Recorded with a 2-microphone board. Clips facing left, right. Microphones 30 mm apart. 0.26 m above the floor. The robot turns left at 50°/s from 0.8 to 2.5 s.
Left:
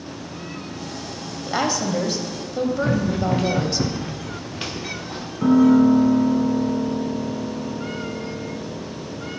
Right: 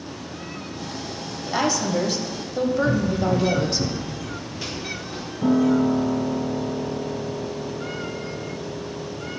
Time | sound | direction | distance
1.5 | a woman speaking | 15° left (ahead or behind) | 0.9 m
2.8 | running footsteps | 75° left (ahead or behind) | 1.4 m
5.4 | a piano | 45° left (ahead or behind) | 2.0 m